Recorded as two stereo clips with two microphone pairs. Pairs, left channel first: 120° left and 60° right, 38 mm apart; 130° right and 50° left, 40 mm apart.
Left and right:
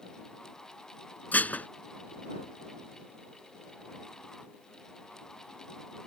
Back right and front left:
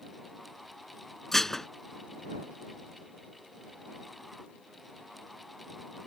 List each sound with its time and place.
1.3 s dishes clattering: 145° left